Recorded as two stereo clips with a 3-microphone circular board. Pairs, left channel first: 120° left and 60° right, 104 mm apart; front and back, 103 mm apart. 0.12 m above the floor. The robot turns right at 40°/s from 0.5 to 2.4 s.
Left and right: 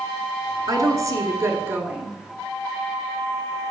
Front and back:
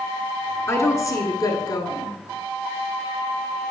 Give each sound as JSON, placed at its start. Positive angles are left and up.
{"t": 0.7, "sound": "a woman speaking", "azimuth_deg": -45, "distance_m": 1.4}